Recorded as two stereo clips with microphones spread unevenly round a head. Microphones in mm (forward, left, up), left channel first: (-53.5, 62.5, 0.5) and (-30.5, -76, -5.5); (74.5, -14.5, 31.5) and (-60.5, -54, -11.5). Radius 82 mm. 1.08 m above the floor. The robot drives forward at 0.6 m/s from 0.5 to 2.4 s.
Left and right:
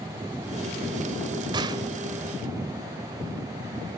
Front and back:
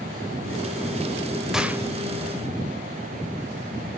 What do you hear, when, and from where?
1.5 s a gunshot: 50° right, 0.9 m; by 1.8 s 70° right, 0.8 m